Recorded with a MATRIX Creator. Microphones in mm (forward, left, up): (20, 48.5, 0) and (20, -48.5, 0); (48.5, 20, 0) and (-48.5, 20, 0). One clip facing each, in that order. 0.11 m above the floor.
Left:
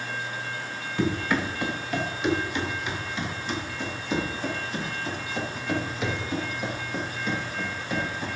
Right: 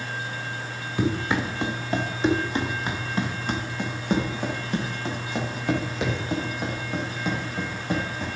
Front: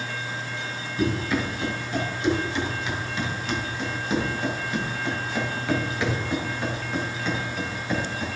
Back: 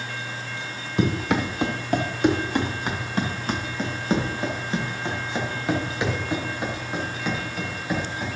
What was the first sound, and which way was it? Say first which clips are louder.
Running footsteps: right 1 dB, back 2 dB; 165° right.